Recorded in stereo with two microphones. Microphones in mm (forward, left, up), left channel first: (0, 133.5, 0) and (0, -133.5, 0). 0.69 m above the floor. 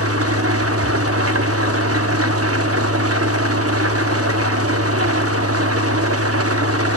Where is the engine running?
60° right (ahead or behind), 0.8 m.